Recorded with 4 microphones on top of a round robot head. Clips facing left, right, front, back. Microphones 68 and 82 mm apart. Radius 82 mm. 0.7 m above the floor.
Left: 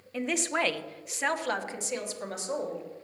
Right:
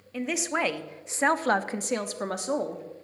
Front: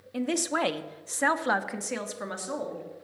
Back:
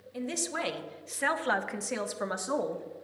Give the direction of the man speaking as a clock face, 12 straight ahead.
12 o'clock.